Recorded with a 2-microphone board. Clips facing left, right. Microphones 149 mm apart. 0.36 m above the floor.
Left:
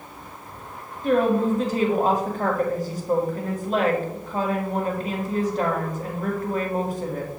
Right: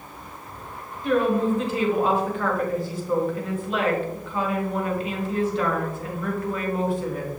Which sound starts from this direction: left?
A woman speaking, at 1.0 s.